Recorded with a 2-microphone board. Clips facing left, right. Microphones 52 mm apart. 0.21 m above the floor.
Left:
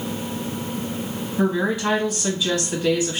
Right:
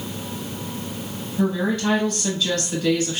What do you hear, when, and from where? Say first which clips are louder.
1.4 s a woman speaking: left 1 dB; 15° left (ahead or behind), 1.0 m